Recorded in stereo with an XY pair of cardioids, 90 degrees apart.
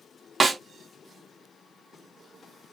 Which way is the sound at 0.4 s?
35° right.